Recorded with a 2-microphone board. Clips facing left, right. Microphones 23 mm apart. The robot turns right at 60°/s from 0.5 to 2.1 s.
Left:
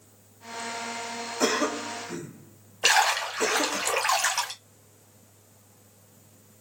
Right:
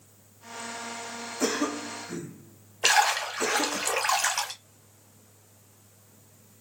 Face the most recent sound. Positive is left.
turn(degrees=0)  # may be behind; listen again after turning